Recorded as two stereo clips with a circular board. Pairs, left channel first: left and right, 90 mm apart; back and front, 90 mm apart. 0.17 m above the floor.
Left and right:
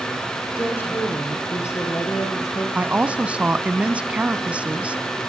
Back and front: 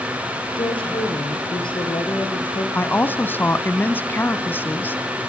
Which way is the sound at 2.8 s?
145° right.